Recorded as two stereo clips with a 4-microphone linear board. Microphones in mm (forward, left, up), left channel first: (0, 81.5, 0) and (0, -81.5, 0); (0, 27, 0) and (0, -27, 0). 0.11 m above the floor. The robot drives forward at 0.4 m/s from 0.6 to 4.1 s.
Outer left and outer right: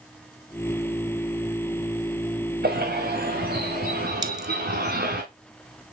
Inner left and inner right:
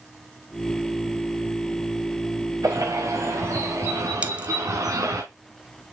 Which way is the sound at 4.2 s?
25° right (ahead or behind).